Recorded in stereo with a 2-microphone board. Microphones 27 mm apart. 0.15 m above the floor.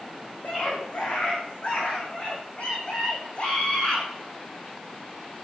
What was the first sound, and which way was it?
A scream, 65° left (ahead or behind).